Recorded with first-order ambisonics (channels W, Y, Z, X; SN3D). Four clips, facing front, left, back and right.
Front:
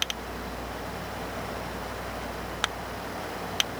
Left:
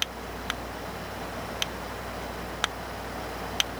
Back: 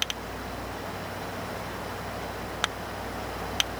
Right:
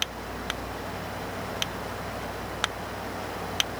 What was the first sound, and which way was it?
Only background noise.